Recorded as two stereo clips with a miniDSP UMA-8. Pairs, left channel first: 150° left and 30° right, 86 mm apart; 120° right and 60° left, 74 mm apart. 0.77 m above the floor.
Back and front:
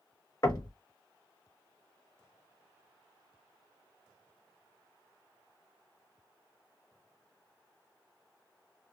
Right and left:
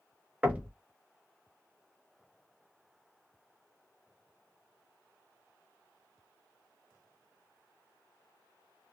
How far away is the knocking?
About 0.8 m.